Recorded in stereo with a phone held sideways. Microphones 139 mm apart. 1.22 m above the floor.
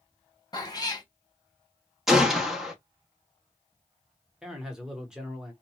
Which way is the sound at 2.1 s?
5° right (ahead or behind).